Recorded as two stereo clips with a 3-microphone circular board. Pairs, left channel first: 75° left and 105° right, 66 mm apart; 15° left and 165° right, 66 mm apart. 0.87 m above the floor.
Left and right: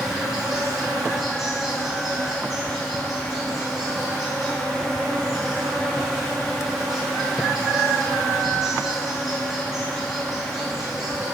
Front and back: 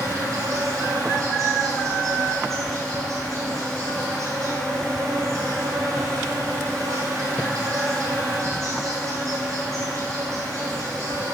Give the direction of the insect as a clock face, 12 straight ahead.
6 o'clock.